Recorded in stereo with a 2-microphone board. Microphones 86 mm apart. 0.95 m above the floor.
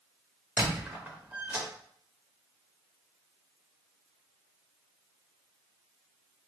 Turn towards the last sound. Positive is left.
turn(degrees=-15)  # may be behind; listen again after turning